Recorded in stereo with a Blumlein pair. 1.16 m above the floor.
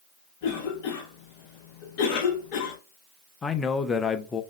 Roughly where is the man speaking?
Ahead.